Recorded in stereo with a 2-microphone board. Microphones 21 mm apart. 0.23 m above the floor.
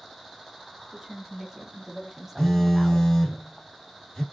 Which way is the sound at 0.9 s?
15° right (ahead or behind).